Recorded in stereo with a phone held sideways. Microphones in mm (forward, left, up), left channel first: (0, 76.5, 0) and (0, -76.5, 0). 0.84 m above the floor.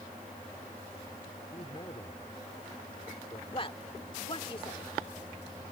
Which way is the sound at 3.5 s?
35° left (ahead or behind).